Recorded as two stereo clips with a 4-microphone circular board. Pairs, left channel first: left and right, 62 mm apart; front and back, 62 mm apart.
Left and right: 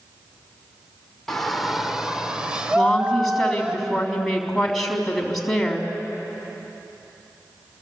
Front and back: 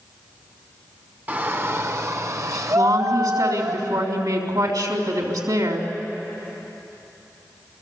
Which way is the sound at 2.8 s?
175° left.